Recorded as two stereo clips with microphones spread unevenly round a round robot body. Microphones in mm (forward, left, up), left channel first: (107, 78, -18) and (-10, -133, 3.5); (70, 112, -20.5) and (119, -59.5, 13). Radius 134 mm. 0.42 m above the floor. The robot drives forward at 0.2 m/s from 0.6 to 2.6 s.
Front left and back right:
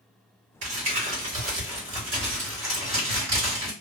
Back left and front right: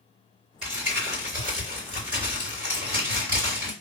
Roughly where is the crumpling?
Behind right.